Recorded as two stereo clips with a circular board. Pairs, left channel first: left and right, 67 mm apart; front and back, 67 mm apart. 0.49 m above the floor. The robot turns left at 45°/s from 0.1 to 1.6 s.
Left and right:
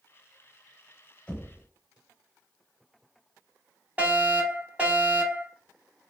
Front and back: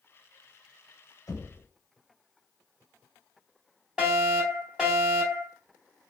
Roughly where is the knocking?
Ahead.